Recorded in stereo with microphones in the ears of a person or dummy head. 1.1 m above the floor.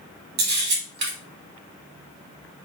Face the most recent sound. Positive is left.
turn(degrees=-60)  # may be behind; listen again after turning